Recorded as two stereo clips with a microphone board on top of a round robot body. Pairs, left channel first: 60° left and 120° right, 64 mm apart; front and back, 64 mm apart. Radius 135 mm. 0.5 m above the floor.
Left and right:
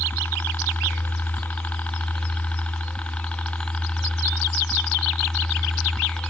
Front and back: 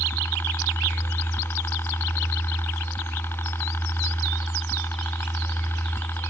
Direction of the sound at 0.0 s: 20° left.